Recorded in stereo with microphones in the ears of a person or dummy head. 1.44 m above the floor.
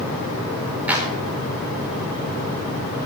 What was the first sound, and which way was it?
A clap, 10° right (ahead or behind).